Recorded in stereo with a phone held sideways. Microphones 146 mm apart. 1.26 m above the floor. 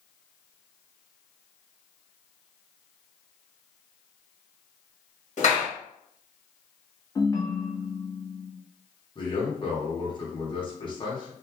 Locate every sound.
5.4 s a clap: 55° left (ahead or behind), 1.3 m
7.2 s a ringtone: 25° left (ahead or behind), 0.7 m
9.2 s a man speaking: 35° left (ahead or behind), 1.3 m